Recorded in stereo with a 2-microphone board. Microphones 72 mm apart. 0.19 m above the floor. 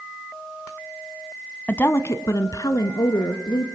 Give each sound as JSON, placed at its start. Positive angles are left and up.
{"t": 1.7, "sound": "a woman speaking", "side_deg": 20, "distance_m": 1.0}